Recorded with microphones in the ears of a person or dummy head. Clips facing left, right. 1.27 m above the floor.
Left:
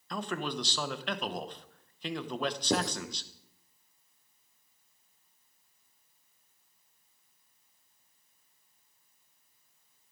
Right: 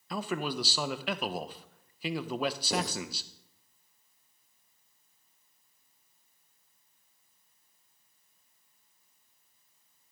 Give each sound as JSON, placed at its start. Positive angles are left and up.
{"t": 0.1, "sound": "a man speaking", "side_deg": -5, "distance_m": 0.7}
{"t": 2.7, "sound": "writing", "side_deg": 55, "distance_m": 3.5}